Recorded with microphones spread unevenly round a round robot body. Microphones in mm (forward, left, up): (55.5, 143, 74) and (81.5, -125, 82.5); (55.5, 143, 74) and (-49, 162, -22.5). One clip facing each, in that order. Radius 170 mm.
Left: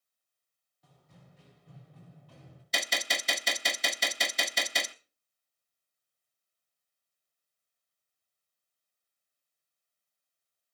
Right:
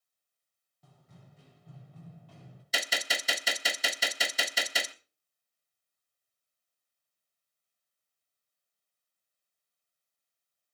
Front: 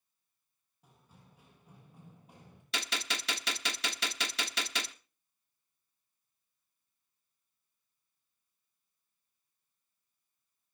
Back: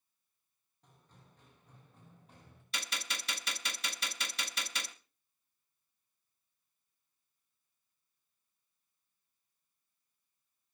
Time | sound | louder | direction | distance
0.8 | running footsteps | right 1 dB, front 2 dB | 90° right | 8.5 m
2.7 | a gunshot | even, front 5 dB | 5° left | 0.8 m